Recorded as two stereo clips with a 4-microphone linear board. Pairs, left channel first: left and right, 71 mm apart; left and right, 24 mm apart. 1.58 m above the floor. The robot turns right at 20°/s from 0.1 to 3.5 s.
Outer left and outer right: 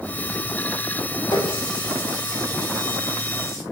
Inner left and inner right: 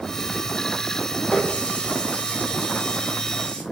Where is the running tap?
95° left, 5 m; by 3.6 s 135° left, 5 m.